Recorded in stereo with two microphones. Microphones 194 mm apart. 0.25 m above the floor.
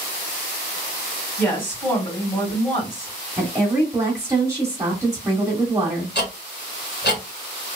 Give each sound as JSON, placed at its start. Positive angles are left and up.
{"t": 1.4, "sound": "a woman speaking", "side_deg": 10, "distance_m": 1.9}
{"t": 3.4, "sound": "a woman speaking", "side_deg": -15, "distance_m": 0.9}
{"t": 6.2, "sound": "ticking", "side_deg": 60, "distance_m": 1.1}